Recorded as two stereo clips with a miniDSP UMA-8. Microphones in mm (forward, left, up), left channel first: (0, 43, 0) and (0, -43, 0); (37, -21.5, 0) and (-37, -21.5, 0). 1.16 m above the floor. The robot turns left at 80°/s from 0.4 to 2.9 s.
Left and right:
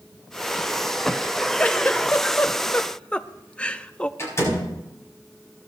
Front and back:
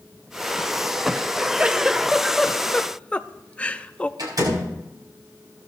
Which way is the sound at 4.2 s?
145° left.